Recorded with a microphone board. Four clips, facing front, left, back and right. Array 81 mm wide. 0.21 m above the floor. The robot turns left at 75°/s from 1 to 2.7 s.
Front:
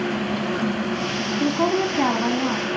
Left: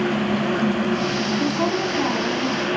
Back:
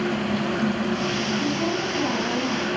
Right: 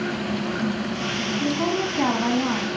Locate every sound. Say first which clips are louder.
1.4 s a woman speaking: right 1 dB, front 4 dB; 30° left, 1.4 m; by 2.7 s 65° right, 1.4 m